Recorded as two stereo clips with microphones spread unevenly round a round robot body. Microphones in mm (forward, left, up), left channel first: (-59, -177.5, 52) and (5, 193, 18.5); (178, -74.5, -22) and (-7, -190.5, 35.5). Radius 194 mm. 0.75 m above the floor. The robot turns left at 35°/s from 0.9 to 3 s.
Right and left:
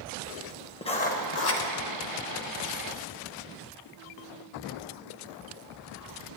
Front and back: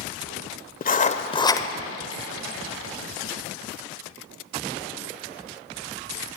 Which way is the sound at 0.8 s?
30° right.